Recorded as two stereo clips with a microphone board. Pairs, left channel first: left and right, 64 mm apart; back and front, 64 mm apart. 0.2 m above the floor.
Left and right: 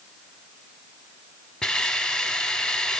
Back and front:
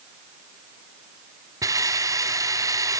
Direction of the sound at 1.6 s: 15° left.